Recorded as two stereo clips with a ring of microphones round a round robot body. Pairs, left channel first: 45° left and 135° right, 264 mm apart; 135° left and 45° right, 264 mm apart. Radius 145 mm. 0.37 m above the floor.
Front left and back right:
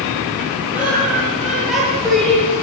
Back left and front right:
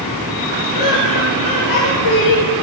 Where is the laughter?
140° left, 10 m; by 2.5 s 130° left, 8.5 m.